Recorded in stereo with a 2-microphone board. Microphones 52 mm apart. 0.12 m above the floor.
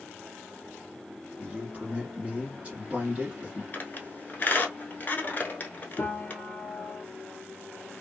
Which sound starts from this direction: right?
A man speaking, at 1.4 s.